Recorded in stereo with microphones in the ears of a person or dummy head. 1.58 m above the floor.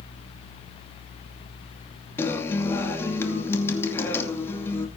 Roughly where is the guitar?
Centre.